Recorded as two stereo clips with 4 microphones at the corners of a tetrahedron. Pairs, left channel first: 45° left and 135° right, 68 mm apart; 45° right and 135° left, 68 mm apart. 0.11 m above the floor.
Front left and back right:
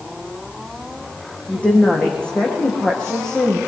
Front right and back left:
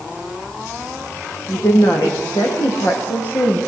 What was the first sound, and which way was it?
A woman speaking, 20° right.